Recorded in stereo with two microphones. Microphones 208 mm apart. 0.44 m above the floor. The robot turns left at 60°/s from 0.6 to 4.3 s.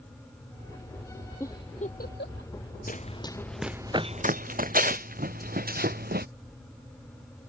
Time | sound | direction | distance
1.4 | a giggle | 10° left (ahead or behind) | ?
2.9 | running footsteps | 45° left (ahead or behind) | ?